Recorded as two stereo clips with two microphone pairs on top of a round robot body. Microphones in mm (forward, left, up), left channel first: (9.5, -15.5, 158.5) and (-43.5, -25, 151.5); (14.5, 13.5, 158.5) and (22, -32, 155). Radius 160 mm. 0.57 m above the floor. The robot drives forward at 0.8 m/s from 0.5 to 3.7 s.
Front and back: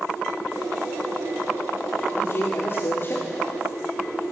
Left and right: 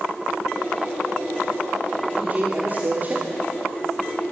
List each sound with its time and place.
2.1 s a man speaking: 25° right, 3.5 m; by 3.2 s 35° right, 2.5 m